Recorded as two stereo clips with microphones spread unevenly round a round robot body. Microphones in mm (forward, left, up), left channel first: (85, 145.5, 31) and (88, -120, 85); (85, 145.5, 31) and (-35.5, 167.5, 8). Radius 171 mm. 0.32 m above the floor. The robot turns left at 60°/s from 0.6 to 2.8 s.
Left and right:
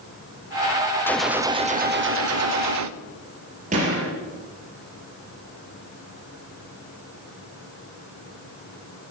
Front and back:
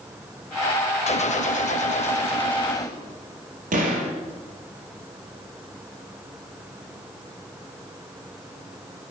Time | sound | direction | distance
1.1 | a gunshot | 20° left | 0.8 m
3.7 | a gunshot | 160° right | 4 m